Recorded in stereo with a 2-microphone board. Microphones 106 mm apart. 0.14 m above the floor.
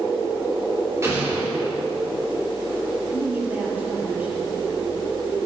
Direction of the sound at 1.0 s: 25° right (ahead or behind).